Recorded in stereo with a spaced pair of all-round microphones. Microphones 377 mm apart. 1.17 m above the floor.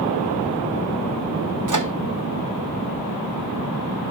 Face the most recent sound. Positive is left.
turn(degrees=-55)  # may be behind; listen again after turning